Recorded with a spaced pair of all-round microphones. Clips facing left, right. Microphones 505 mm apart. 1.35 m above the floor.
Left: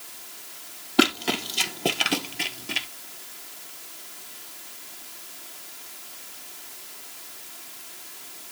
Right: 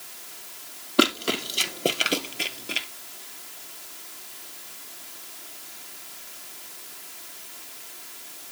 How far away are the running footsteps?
About 1.9 m.